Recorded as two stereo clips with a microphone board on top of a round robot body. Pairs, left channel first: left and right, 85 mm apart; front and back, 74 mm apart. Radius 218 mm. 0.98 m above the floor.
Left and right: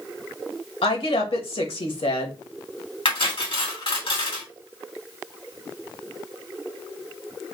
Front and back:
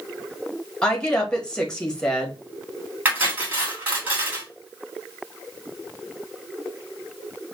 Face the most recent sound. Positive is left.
turn(degrees=115)